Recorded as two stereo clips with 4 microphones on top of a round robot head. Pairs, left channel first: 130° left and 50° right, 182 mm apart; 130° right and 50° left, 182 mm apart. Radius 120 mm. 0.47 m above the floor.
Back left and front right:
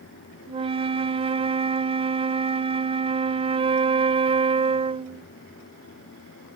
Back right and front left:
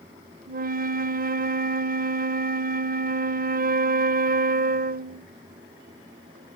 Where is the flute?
10° left.